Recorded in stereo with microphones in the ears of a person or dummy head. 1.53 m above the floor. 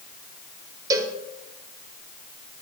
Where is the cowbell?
20° right (ahead or behind), 1.3 m.